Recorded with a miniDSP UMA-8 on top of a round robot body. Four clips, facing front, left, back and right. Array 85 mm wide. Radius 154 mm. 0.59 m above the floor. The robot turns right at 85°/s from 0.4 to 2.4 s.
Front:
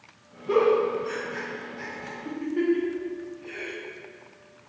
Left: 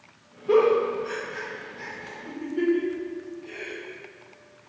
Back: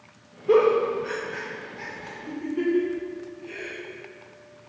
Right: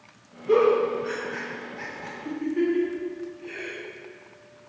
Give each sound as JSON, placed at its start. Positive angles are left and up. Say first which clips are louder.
{"t": 0.5, "sound": "a giggle", "louder": "even, back 2 dB", "azimuth_deg": 160, "distance_m": 0.9}